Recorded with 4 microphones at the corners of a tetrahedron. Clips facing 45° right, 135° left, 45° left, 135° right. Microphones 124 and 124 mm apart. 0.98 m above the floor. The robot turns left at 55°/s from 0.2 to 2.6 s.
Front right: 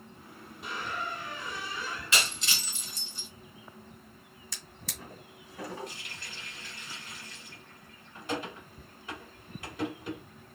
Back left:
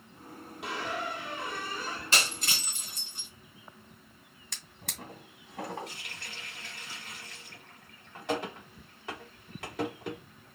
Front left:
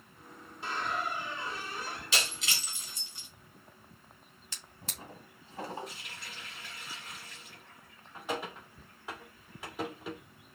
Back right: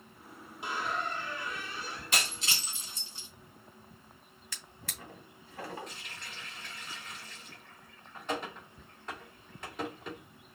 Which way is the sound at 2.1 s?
175° right.